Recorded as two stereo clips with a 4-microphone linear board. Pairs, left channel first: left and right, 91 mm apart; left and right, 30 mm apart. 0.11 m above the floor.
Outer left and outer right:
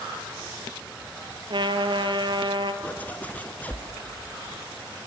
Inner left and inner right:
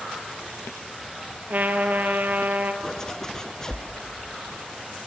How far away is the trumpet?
About 1.4 m.